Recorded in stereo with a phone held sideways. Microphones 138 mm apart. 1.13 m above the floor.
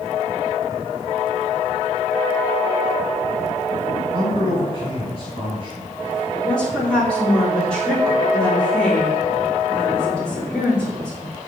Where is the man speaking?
45° right (ahead or behind), 4 m.